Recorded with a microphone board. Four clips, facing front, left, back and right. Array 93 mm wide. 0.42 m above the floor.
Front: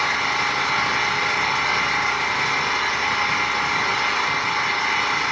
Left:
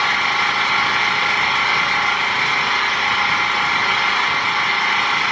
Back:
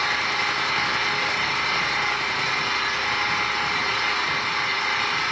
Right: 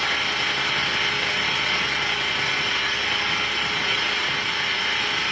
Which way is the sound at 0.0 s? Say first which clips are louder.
Left 7 dB, front 2 dB; 80° left.